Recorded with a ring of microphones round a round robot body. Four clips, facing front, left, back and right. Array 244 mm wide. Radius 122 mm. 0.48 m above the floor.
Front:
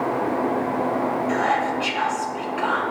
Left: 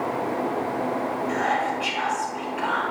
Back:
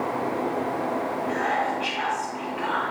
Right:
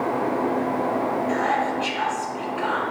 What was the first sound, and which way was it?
Whispering, 5° right.